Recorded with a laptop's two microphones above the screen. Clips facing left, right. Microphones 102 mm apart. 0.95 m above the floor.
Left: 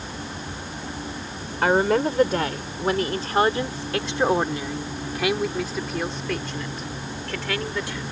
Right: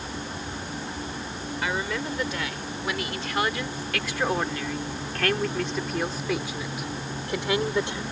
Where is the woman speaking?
55° left (ahead or behind); by 8.0 s 25° right (ahead or behind).